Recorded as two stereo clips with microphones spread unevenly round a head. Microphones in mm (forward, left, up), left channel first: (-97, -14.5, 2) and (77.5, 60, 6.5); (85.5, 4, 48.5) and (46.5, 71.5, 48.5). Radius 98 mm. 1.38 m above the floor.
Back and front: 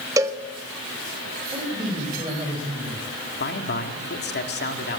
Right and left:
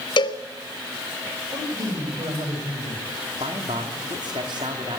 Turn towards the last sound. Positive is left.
turn(degrees=170)